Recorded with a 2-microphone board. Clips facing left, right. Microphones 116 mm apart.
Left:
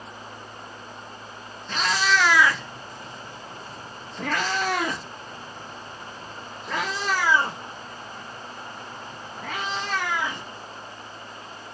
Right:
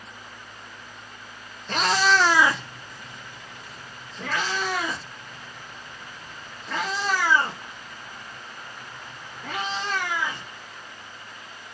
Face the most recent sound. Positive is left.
turn(degrees=80)